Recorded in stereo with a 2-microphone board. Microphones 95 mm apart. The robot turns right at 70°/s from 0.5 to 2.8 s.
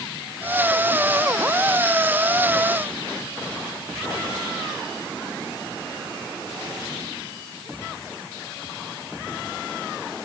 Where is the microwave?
I don't hear a microwave.